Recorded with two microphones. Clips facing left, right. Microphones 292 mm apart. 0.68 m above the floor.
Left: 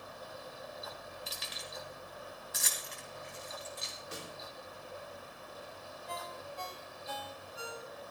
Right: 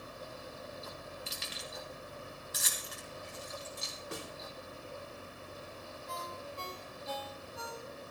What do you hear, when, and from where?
1.3 s keys jangling: 30° right (ahead or behind), 2.5 m; by 3.9 s 55° right (ahead or behind), 3.5 m
4.1 s a snare drum: 60° right (ahead or behind), 2 m
6.1 s a ringtone: 55° right (ahead or behind), 2 m